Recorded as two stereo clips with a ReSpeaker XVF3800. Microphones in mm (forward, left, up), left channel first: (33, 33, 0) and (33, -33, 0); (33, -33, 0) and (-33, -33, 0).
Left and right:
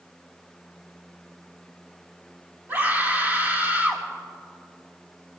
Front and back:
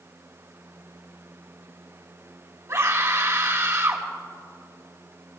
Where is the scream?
145° right, 3 m.